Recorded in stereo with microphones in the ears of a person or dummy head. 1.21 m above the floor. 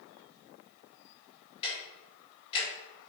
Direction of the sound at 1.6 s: 35° left (ahead or behind).